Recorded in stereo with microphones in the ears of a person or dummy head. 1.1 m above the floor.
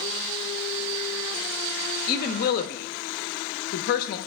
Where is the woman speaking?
55° left (ahead or behind), 0.9 m.